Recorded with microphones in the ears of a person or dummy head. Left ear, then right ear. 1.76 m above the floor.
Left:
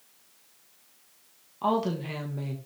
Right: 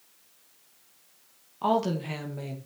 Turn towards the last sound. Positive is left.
turn(degrees=-10)  # may be behind; listen again after turning